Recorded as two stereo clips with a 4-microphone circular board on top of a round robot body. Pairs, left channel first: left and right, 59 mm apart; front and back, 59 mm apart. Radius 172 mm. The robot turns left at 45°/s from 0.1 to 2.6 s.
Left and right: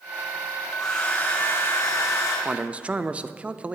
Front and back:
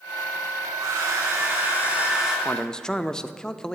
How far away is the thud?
I don't hear a thud.